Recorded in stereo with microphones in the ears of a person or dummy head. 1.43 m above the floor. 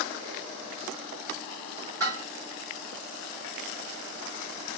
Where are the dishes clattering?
20° right (ahead or behind), 3 m.